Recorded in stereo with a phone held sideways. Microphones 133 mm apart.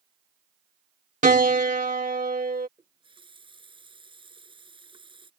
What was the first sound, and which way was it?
A piano, 85° right.